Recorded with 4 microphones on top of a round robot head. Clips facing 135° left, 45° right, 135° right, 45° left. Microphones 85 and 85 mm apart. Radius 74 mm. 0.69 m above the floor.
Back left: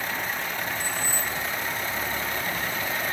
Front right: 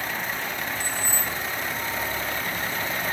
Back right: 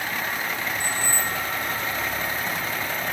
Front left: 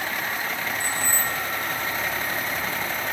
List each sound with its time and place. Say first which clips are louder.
0.8 s keys jangling: even, even; 110° right, 1.6 m